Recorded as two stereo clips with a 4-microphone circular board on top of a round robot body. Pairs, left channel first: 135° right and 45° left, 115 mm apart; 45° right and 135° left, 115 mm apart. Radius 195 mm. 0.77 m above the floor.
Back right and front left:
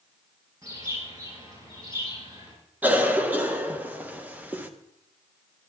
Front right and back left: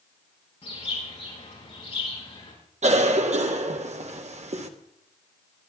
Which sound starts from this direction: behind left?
A cough, at 2.8 s.